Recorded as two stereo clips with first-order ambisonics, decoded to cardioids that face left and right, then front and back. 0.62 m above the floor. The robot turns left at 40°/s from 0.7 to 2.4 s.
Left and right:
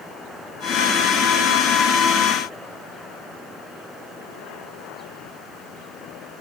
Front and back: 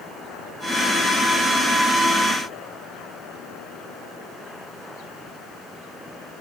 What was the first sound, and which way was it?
Only background noise.